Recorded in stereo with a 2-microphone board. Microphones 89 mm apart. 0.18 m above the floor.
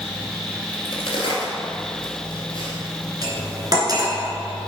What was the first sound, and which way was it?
A crack, 70° left (ahead or behind).